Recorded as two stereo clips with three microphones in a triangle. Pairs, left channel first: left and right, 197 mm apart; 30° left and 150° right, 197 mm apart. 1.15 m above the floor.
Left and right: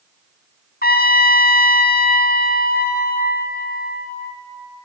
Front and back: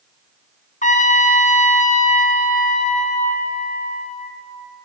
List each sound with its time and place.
0.8 s a trumpet: 70° left, 0.7 m